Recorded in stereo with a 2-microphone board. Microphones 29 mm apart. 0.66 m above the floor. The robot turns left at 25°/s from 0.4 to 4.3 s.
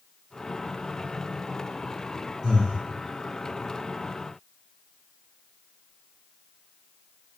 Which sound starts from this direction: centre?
Breathing, at 2.4 s.